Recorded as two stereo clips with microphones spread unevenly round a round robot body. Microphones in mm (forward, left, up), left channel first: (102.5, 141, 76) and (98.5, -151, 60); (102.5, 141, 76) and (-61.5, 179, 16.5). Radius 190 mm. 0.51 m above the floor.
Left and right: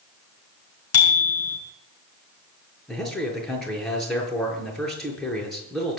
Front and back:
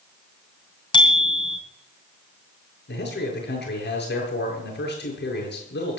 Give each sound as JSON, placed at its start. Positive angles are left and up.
{"t": 0.9, "sound": "a bicycle bell", "azimuth_deg": 50, "distance_m": 4.5}
{"t": 2.9, "sound": "a man speaking", "azimuth_deg": 0, "distance_m": 8.5}